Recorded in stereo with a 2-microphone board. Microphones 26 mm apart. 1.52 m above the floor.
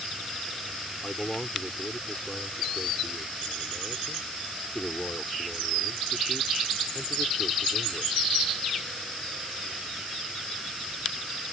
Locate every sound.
1.0 s a man speaking: 25° left (ahead or behind)